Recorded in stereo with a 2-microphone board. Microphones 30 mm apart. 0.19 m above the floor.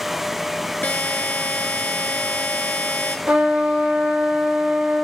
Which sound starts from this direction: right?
A trumpet, at 3.3 s.